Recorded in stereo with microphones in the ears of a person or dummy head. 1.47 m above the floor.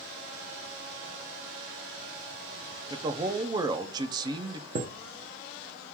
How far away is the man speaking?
About 0.7 m.